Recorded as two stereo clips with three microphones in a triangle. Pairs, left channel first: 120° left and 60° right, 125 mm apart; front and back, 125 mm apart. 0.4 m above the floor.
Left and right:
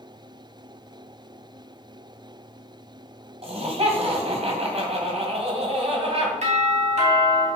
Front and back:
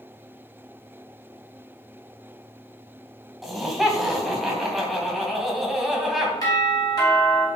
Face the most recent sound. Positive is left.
turn(degrees=-55)